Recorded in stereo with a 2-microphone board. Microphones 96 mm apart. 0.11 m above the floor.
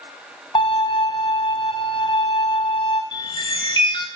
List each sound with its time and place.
0.6 s a violin: 70° left (ahead or behind), 1.6 m
3.1 s a chime: 55° left (ahead or behind), 1.0 m